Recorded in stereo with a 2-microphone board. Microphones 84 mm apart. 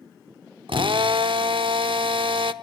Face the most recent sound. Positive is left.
turn(degrees=-85)